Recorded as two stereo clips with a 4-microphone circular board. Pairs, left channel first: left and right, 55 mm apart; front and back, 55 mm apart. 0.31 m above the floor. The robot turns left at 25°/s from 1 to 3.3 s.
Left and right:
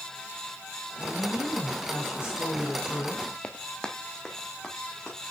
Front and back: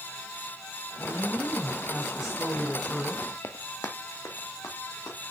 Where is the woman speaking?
125° left, 1.5 m; by 3.3 s 70° left, 1.5 m.